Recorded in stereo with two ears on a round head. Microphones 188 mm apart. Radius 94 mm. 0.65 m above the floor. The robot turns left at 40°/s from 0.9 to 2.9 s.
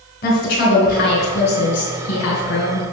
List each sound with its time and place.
0.2 s a woman speaking: 130° left, 3.5 m; by 2.8 s 55° left, 3.5 m